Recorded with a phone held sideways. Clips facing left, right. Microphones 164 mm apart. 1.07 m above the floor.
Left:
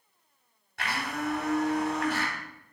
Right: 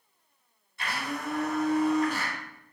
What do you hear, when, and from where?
0.8 s a blender: 80° left, 3 m